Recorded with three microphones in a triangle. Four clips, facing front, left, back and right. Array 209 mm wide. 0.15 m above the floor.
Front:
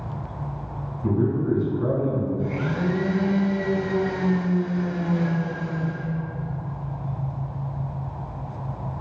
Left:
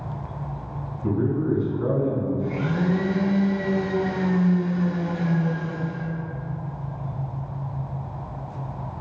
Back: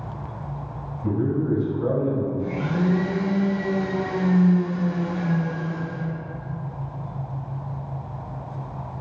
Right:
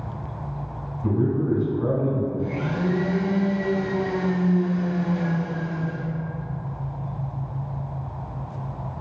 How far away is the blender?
About 1.5 m.